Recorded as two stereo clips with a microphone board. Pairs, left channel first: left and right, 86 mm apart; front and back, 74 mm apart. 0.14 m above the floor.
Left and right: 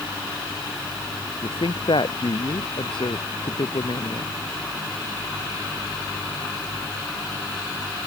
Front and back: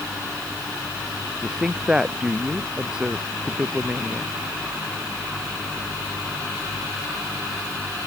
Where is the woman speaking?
95° left; by 4.4 s 105° left.